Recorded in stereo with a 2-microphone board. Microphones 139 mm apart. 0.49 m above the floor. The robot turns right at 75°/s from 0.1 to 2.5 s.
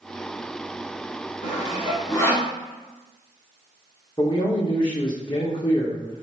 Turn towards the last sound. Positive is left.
turn(degrees=35)  # may be behind; listen again after turning